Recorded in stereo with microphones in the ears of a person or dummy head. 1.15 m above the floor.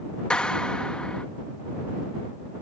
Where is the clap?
5° left (ahead or behind).